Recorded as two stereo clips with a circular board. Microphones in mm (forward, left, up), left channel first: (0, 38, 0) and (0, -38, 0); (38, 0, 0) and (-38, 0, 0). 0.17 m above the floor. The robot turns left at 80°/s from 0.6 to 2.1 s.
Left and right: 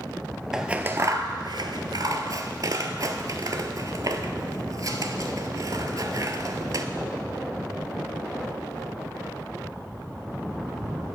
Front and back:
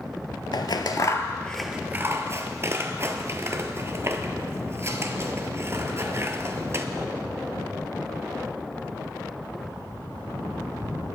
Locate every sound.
0.5 s scissors: 5° right, 0.5 m; by 6.9 s 125° right, 0.5 m